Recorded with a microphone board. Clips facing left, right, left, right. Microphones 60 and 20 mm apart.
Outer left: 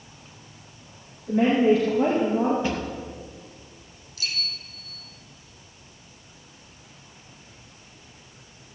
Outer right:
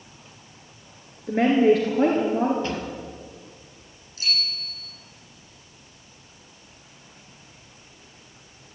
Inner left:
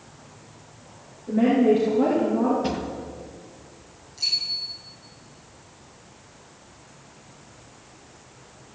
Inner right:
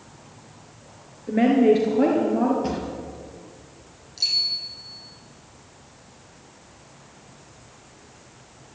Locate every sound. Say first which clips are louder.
1.3 s a woman speaking: outer right 1 dB, inner right 1 dB; 55° right (ahead or behind), 3 m
2.6 s a drawer: outer left 2 dB, even; 15° left (ahead or behind), 3 m
4.2 s a bicycle bell: outer right 3 dB, inner right 2 dB; 35° right (ahead or behind), 6.5 m